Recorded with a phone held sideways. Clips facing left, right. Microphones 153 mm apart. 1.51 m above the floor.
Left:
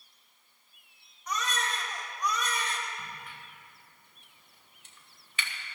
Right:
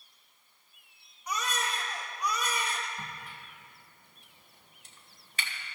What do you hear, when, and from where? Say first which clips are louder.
1.3 s a baby crying: even; 10° right (ahead or behind), 1.9 m
3.0 s a crack: right 1 dB; 40° right (ahead or behind), 1.9 m